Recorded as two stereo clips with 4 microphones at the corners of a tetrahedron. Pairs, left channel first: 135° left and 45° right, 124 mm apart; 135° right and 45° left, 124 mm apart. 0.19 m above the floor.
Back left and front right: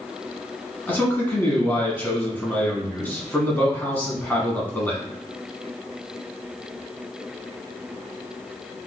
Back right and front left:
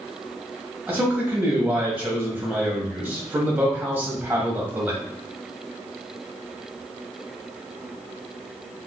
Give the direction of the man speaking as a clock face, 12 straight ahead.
9 o'clock.